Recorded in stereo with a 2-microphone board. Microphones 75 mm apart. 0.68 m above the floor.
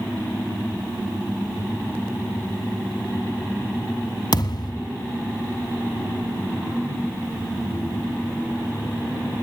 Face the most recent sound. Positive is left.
turn(degrees=70)  # may be behind; listen again after turning